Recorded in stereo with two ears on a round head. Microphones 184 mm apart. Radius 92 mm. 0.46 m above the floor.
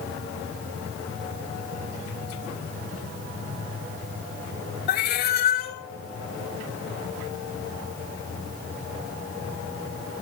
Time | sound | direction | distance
4.9 | a cat meowing | 50° left (ahead or behind) | 1.4 m